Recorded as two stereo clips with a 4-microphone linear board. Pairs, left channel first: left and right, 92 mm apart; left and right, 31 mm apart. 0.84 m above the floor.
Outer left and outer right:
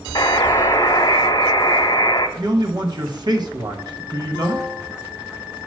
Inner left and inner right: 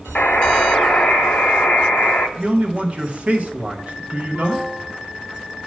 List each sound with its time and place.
0.1 s a buzzer: 50° left (ahead or behind), 1.1 m
2.4 s a man speaking: 50° right (ahead or behind), 1.2 m